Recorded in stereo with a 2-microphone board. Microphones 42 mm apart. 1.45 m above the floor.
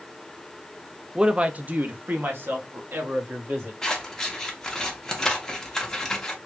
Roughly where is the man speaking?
Centre.